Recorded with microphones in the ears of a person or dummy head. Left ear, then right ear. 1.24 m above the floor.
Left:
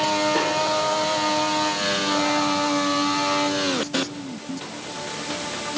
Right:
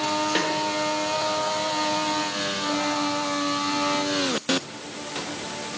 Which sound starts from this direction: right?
A snare drum, at 0.3 s.